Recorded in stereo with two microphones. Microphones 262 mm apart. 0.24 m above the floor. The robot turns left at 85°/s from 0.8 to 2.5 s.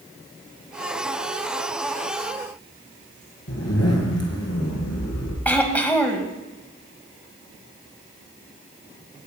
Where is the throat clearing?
5° left (ahead or behind), 1.5 m.